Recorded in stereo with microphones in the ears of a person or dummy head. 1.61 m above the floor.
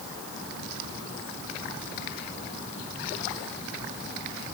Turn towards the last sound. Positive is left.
No sound to turn to.